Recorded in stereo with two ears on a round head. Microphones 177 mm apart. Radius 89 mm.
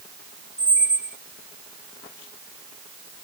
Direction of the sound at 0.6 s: 5° right (ahead or behind).